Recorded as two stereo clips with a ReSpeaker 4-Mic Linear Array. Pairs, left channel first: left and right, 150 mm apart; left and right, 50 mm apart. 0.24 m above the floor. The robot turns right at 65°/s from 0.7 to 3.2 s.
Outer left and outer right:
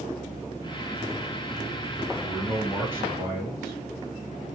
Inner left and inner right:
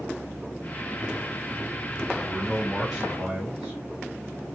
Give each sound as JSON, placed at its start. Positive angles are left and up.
{"t": 2.2, "sound": "a man speaking", "side_deg": 5, "distance_m": 1.6}